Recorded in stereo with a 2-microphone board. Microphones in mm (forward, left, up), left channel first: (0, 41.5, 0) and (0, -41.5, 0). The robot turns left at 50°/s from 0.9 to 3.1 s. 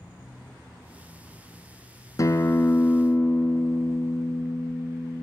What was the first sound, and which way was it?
A guitar, 80° left.